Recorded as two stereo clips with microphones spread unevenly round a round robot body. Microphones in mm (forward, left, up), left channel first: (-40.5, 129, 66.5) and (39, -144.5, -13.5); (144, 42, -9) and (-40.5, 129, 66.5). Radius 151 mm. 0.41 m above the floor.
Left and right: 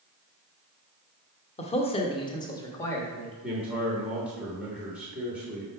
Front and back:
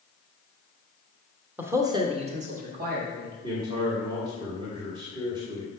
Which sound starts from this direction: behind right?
A man speaking, at 3.4 s.